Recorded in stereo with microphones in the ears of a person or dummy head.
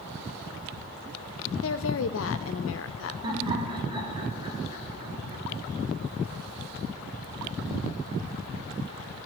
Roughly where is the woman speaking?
Left.